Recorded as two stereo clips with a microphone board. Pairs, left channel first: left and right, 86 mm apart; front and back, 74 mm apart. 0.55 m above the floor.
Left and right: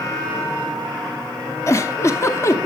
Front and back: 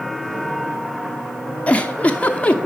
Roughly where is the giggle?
Ahead left.